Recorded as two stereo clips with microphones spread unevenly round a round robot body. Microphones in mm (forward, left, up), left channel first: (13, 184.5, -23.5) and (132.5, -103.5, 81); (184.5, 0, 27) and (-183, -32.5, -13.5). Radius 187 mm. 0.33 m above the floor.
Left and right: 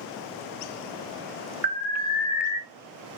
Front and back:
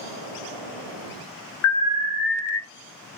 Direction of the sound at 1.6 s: 40° left.